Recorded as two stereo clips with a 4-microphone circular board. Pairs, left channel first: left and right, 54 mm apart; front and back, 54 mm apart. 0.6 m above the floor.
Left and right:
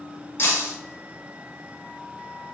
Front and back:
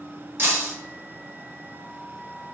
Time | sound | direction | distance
0.4 | breaking glass | 140° left | 1.7 m